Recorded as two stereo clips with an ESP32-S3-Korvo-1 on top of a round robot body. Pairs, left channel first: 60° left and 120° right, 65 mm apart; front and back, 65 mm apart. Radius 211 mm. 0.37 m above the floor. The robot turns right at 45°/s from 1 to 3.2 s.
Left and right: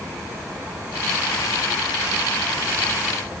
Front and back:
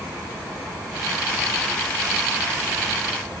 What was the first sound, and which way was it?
Only background noise.